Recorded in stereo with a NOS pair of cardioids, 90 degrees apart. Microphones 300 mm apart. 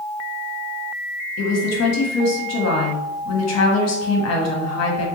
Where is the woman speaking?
55° left, 1.3 m.